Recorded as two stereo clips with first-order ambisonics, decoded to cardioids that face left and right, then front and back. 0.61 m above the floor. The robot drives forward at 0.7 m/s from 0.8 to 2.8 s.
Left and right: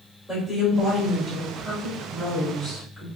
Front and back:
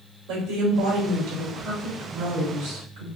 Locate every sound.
0.3 s a woman speaking: 175° right, 2.5 m